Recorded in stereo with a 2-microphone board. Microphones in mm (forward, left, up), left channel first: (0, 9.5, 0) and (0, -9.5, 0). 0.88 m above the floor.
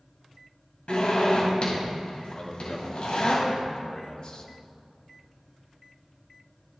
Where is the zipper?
70° left (ahead or behind), 4 m.